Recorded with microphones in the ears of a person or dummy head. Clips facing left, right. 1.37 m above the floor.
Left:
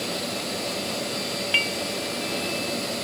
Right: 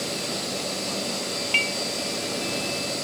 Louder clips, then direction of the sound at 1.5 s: Left 1 dB; 10° left (ahead or behind).